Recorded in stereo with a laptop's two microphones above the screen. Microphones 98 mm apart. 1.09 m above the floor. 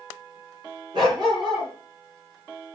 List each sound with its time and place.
0.9 s a dog barking: 55° right (ahead or behind), 5.5 m